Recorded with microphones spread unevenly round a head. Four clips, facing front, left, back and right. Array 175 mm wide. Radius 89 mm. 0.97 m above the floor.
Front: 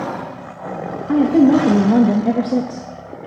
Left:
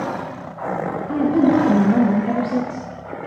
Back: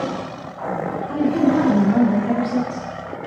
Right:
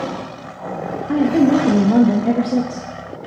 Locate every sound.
1.1 s a woman speaking: 20° right, 1.6 m